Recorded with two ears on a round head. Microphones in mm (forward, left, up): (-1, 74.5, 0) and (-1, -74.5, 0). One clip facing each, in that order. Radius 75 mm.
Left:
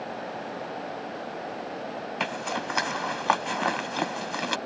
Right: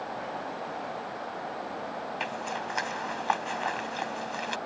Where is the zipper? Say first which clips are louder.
Left 6 dB; 70° left (ahead or behind).